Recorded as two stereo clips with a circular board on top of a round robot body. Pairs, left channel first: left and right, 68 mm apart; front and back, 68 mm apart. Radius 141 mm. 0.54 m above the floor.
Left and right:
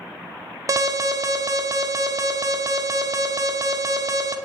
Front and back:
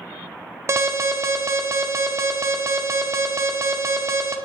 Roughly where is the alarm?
Behind right.